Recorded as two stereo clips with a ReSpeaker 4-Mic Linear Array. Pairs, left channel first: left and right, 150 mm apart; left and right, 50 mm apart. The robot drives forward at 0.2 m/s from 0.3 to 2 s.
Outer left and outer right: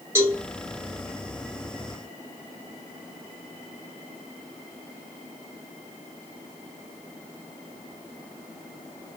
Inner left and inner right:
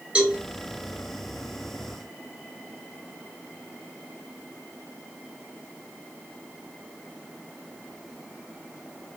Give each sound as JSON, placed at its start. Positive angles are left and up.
{"t": 0.1, "sound": "a cowbell", "side_deg": -20, "distance_m": 1.7}